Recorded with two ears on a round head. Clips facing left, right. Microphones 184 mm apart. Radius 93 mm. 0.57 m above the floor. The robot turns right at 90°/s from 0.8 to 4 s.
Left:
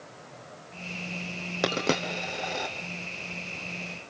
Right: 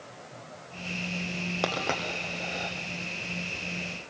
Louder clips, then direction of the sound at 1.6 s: Left 5 dB; 20° left (ahead or behind).